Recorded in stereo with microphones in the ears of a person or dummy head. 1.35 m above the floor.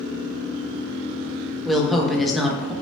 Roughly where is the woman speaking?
Centre.